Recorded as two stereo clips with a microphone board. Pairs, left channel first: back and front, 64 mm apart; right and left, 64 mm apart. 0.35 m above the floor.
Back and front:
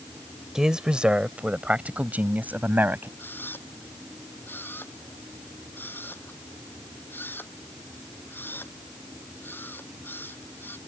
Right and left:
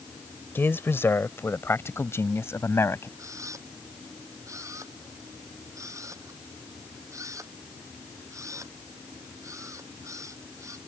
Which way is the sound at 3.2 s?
120° left.